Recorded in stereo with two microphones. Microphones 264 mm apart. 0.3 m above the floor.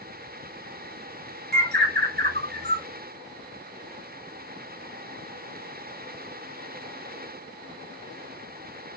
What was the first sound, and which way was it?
A bird, 40° right (ahead or behind).